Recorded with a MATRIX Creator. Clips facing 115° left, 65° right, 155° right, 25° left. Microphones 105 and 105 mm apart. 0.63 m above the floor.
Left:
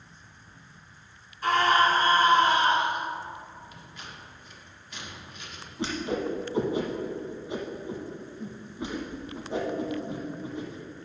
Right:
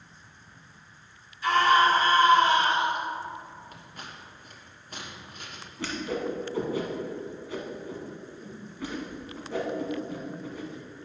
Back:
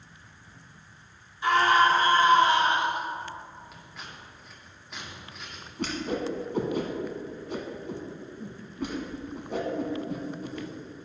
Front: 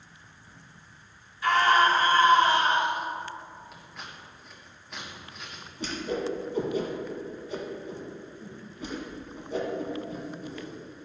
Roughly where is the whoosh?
Behind.